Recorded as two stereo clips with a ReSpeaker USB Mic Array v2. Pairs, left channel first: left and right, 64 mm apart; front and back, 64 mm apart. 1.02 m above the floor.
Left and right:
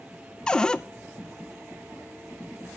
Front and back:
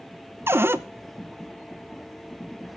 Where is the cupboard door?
160° left, 0.6 m.